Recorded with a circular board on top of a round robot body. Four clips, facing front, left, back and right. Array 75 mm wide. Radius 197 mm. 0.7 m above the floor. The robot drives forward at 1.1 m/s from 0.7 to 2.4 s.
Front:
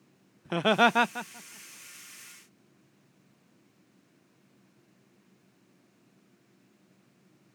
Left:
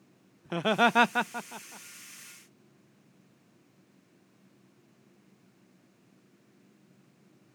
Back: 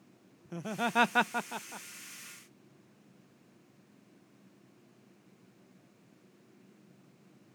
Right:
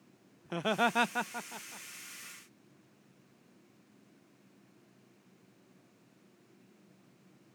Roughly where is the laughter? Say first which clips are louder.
Left 5 dB, front 12 dB; ahead.